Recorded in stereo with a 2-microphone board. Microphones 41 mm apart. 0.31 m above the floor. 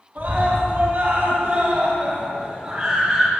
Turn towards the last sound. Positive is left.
turn(degrees=0)  # may be behind; listen again after turning